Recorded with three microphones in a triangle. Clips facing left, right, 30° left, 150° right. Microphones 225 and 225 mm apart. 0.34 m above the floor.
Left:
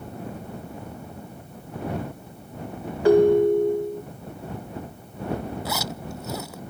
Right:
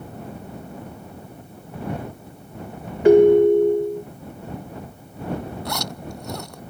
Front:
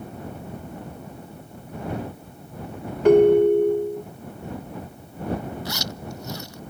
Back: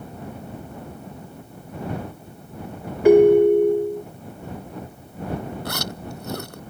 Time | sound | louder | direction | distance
3.0 | a ringtone | right 4 dB, back 2 dB | 85° right | ?
5.7 | a zipper | right 1 dB, back 2 dB | 175° left | ?